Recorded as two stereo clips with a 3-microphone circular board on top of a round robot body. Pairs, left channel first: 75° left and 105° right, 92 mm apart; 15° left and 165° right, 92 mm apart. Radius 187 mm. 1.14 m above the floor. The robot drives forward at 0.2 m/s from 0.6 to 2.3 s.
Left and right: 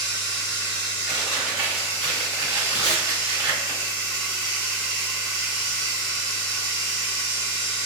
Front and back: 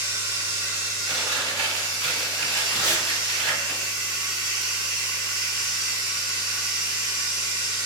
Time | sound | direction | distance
0.0 | running water | 130° left | 0.9 m
1.1 | chewing | straight behind | 1.6 m
2.7 | tape being pulled | 115° right | 1.1 m